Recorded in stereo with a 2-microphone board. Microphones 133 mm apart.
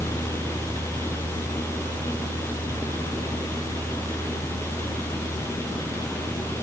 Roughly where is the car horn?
I don't hear a car horn.